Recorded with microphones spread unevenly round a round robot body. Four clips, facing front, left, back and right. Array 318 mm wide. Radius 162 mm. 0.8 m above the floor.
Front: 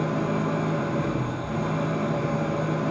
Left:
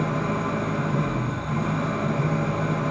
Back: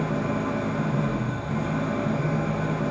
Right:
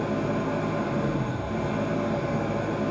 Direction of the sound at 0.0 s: 65° left.